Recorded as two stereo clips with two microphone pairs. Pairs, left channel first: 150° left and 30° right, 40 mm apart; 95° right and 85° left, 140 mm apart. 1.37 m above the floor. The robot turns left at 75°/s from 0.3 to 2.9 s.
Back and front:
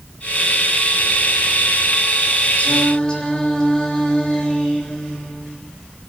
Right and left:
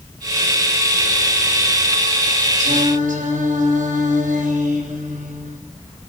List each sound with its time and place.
2.6 s singing: 105° left, 7 m; by 5.6 s 80° left, 7 m